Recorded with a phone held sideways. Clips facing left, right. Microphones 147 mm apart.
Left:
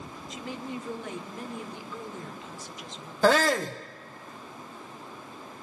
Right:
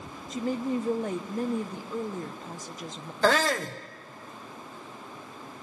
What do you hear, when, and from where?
0.3 s a woman speaking: 40° right (ahead or behind), 1.3 m
3.2 s a shout: 10° left (ahead or behind), 0.8 m